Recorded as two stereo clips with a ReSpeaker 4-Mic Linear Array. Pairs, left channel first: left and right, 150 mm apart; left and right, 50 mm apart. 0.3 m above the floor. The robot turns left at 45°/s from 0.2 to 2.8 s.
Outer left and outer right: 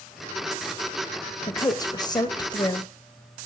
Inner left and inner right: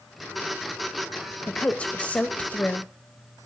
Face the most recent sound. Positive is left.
turn(degrees=25)  # may be behind; listen again after turning